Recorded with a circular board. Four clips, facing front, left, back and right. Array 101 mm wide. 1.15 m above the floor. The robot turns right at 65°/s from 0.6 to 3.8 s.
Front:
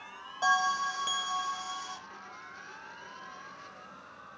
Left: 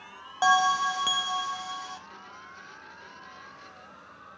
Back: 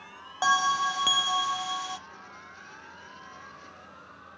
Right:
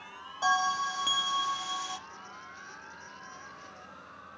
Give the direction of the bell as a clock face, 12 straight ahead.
8 o'clock.